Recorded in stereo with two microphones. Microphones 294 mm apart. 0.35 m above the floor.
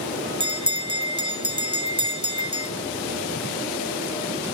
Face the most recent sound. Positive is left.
turn(degrees=-15)  # may be behind; listen again after turning